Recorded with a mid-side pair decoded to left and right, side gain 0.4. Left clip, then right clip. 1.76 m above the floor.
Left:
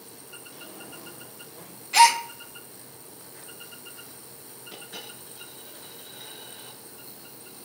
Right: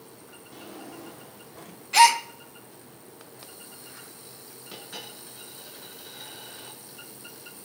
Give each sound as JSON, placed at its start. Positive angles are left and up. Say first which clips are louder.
{"t": 0.5, "sound": "a drawer", "louder": "right 4 dB", "azimuth_deg": -60, "distance_m": 3.0}
{"t": 1.9, "sound": "a gasp", "louder": "even", "azimuth_deg": 0, "distance_m": 1.1}
{"t": 4.7, "sound": "a dropped coin", "louder": "right 1 dB", "azimuth_deg": -50, "distance_m": 6.5}